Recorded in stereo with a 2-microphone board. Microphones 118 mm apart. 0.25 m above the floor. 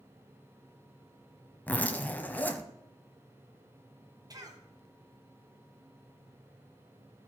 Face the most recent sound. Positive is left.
turn(degrees=-30)  # may be behind; listen again after turning